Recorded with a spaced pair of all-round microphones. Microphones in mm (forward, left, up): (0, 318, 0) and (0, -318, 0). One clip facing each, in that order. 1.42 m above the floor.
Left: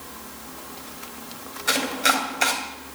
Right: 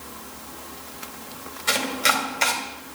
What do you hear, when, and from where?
1.7 s chopping: 30° right (ahead or behind), 2 m